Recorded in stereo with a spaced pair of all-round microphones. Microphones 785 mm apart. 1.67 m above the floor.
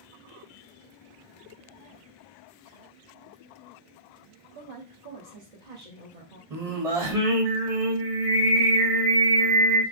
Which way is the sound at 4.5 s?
75° right (ahead or behind).